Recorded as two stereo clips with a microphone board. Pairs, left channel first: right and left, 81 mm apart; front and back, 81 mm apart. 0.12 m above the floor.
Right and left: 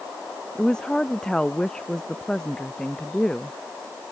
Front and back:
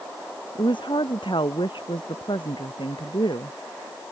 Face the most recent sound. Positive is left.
turn(degrees=-10)